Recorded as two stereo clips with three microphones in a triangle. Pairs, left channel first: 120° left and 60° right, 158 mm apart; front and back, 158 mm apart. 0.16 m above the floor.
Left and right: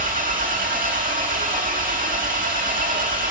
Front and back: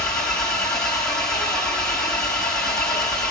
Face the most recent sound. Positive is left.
turn(degrees=-85)